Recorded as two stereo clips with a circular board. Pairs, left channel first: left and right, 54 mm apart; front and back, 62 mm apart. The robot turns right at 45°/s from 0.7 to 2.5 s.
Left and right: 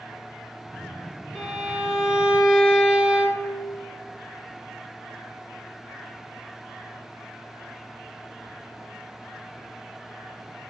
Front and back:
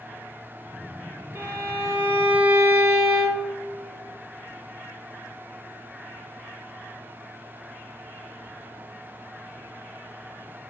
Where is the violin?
170° left, 0.9 m; by 3.5 s 135° right, 0.9 m.